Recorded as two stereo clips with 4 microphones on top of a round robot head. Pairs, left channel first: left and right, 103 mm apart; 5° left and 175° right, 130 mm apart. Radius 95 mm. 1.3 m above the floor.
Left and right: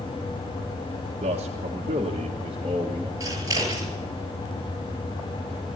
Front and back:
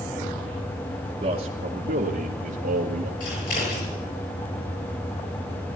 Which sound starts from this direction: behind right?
A man speaking, at 1.2 s.